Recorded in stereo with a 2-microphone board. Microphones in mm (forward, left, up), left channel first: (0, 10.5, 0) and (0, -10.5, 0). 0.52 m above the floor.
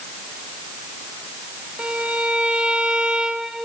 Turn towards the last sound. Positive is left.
turn(degrees=-70)  # may be behind; listen again after turning